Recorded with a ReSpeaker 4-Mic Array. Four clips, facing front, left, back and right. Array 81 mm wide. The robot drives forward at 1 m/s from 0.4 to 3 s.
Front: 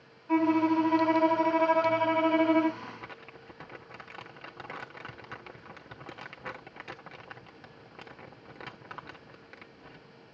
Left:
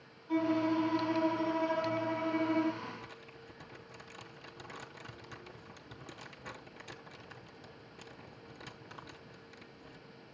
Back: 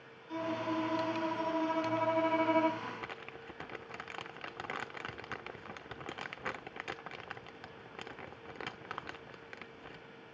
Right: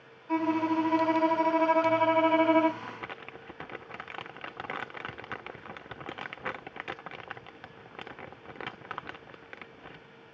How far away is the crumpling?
About 1.0 m.